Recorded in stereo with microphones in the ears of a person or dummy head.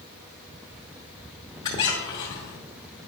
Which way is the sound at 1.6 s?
20° left (ahead or behind).